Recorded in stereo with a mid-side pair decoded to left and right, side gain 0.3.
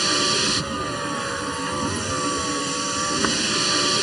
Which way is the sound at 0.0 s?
20° right.